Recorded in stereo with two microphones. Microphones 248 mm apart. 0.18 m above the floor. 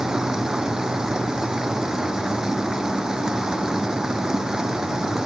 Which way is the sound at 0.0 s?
5° right (ahead or behind).